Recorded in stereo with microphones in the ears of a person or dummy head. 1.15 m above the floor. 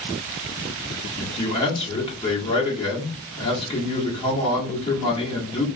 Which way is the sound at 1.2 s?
30° left (ahead or behind).